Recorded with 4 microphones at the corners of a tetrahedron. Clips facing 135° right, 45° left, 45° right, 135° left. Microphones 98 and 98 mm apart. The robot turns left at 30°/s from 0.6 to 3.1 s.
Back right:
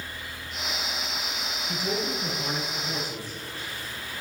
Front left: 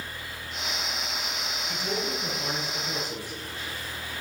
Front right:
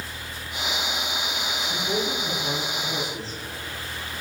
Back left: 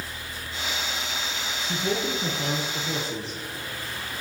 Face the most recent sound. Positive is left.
turn(degrees=115)